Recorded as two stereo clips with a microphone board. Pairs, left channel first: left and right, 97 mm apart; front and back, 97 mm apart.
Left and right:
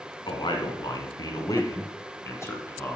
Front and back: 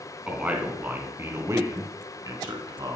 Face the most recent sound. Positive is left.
turn(degrees=155)